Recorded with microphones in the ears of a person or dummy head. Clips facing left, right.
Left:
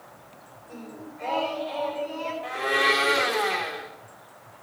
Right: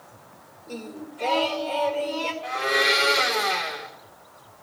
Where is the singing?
50° right (ahead or behind), 1.9 m.